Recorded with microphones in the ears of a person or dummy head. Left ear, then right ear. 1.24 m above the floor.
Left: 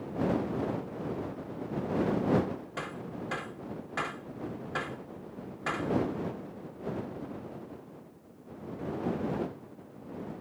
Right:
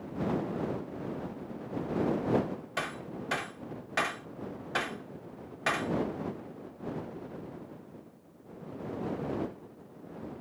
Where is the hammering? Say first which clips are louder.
Right 3 dB; 30° right (ahead or behind).